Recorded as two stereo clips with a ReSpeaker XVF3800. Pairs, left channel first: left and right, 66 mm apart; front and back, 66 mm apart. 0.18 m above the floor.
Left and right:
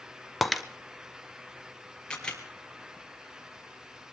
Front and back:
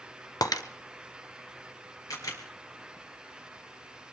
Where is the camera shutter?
15° left, 2.5 m.